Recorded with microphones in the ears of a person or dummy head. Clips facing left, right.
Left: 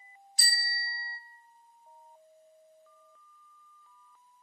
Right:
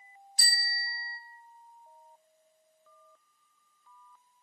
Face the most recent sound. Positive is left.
turn(degrees=75)  # may be behind; listen again after turning